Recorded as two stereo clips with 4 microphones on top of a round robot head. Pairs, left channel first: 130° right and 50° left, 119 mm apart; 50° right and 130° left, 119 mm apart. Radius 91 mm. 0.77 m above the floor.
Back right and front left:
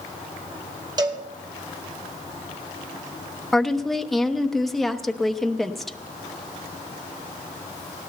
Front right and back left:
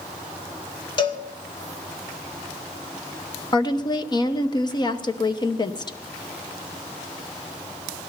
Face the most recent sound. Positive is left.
turn(degrees=-40)